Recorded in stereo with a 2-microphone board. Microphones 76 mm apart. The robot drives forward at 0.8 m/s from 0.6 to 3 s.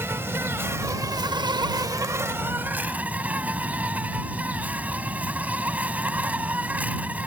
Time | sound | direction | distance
0.0 | an insect | 35° right (ahead or behind) | ?